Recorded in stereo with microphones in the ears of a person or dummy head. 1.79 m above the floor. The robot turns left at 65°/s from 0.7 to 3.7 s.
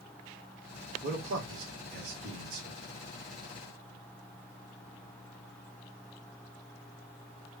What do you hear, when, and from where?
1.0 s a man speaking: 50° right (ahead or behind), 1.7 m; by 2.8 s 10° right (ahead or behind), 1.7 m